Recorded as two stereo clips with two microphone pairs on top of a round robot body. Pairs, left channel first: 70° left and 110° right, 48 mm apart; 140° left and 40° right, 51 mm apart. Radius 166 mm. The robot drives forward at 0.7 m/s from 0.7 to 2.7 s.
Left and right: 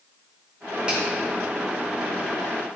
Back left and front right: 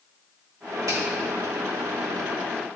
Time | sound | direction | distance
0.9 | a finger snap | 40° right | 4.5 m